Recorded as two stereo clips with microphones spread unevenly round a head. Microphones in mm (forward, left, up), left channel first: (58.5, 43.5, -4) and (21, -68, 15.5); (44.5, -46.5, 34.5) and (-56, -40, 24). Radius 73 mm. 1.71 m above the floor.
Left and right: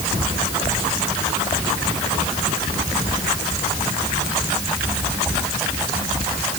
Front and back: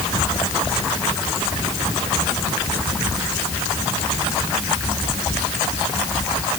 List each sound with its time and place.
Only background noise.